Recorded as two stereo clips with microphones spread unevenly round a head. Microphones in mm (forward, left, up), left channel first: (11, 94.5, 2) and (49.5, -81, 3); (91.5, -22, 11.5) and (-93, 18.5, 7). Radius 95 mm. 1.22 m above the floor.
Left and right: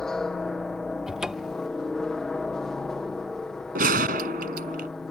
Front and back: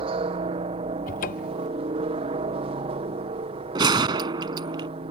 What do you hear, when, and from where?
0.0 s a helicopter: 175° right
1.1 s a cupboard door: 5° left
3.8 s a gunshot: 125° right